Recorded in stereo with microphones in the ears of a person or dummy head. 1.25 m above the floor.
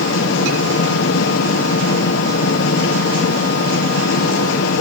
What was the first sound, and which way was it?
A fan, 75° left (ahead or behind).